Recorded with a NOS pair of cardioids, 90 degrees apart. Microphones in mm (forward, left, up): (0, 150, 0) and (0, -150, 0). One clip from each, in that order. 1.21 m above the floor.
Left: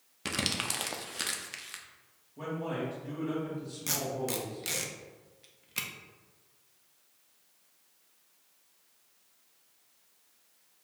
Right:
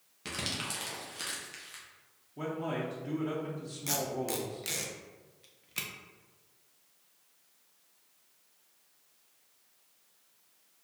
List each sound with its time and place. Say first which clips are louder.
0.2 s crumpling: left 4 dB; 35° left, 0.6 m
2.4 s a man speaking: even; 30° right, 1.1 m
3.9 s tape being pulled: even; 5° left, 0.5 m